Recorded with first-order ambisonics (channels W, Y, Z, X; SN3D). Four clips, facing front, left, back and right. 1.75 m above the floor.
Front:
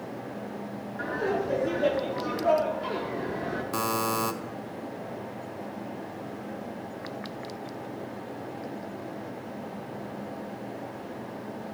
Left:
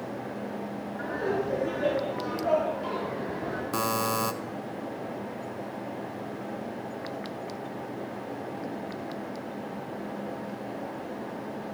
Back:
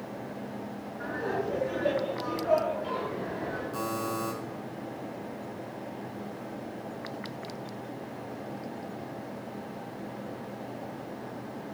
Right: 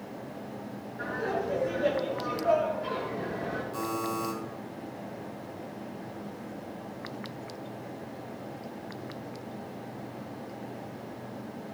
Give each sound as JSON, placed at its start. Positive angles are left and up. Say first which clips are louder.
{"t": 1.0, "sound": "laughter", "louder": "left 1 dB, front 3 dB", "azimuth_deg": 15, "distance_m": 4.0}
{"t": 3.7, "sound": "a buzzer", "louder": "left 7 dB, front 7 dB", "azimuth_deg": 50, "distance_m": 1.2}